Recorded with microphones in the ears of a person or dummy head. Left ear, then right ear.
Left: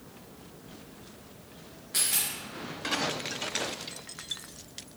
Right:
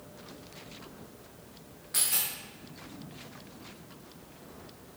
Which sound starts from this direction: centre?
A dropped coin, at 1.9 s.